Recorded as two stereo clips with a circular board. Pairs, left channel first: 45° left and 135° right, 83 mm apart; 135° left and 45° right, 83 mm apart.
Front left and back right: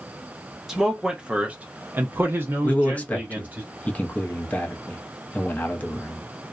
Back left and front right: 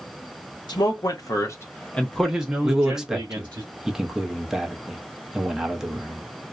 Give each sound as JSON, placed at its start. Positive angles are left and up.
{"t": 0.7, "sound": "a man speaking", "azimuth_deg": 140, "distance_m": 1.0}
{"t": 2.6, "sound": "a man speaking", "azimuth_deg": 30, "distance_m": 0.6}